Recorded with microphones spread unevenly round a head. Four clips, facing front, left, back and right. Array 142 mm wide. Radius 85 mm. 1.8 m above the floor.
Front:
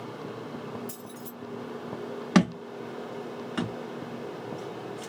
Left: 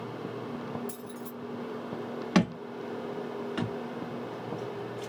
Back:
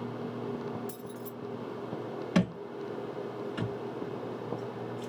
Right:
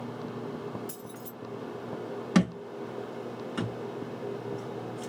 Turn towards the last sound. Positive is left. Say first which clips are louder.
# even, front 6 dB
turn(degrees=5)